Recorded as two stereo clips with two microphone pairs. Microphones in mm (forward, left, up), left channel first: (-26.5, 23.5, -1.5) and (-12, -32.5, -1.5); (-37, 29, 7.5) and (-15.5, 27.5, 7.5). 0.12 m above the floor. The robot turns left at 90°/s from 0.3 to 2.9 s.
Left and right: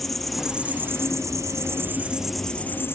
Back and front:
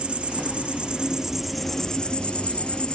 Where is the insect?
20° left, 0.9 m; by 3.0 s 145° left, 0.9 m.